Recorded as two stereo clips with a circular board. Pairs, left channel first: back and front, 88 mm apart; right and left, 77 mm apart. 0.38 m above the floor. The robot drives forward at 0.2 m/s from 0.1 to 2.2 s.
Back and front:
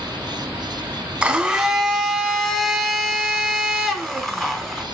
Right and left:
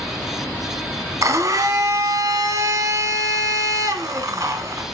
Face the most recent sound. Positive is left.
turn(degrees=95)